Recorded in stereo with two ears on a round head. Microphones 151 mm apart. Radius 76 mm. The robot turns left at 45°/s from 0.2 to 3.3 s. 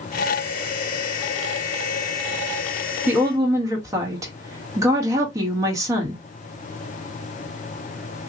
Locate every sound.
3.1 s a woman speaking: 10° right (ahead or behind), 1.5 m; by 6.2 s 20° right (ahead or behind), 1.5 m